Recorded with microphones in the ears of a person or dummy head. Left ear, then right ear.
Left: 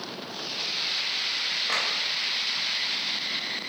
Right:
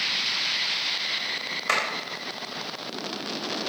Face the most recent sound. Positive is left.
turn(degrees=-60)  # may be behind; listen again after turning